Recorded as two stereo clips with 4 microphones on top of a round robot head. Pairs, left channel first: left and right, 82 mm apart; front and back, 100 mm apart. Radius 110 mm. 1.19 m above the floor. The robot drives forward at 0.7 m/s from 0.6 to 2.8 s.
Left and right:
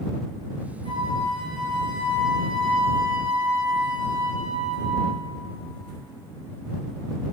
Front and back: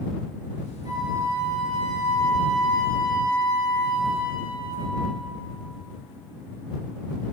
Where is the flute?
120° right, 6.5 m; by 5.2 s 130° right, 7.5 m.